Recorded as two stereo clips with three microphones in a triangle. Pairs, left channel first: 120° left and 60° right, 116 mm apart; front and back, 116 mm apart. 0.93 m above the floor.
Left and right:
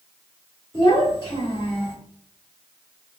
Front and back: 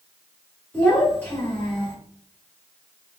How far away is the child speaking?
About 1.7 m.